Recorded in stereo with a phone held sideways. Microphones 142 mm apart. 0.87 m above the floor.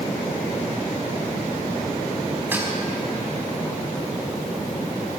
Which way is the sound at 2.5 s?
15° right (ahead or behind).